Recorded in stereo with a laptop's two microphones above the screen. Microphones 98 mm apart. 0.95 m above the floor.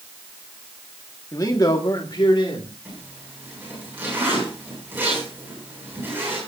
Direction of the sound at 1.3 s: 35° left (ahead or behind).